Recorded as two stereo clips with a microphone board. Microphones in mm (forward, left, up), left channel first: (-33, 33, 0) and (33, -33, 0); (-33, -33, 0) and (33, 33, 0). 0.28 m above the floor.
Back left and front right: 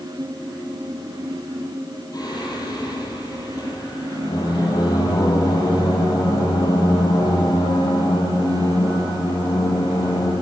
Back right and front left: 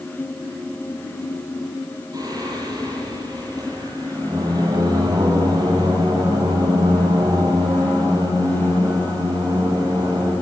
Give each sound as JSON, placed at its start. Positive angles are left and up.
{"t": 2.1, "sound": "singing", "azimuth_deg": 90, "distance_m": 9.5}